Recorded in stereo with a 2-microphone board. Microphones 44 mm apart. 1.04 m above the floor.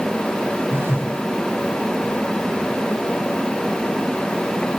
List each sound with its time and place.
0.7 s a phone buzzing: 50° right (ahead or behind), 2 m